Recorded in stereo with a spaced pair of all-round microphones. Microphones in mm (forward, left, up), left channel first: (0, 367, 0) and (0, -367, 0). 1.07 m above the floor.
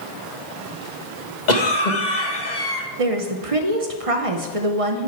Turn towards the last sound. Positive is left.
turn(degrees=-50)  # may be behind; listen again after turning